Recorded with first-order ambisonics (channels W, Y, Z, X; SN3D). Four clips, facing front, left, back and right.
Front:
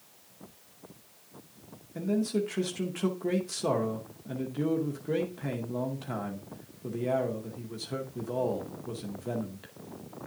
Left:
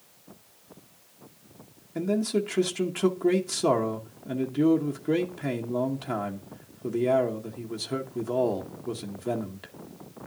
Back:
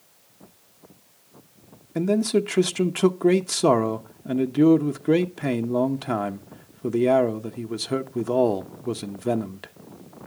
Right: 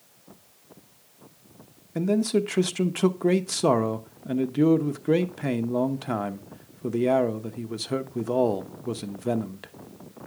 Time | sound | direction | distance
1.9 | a man speaking | 160° right | 0.8 m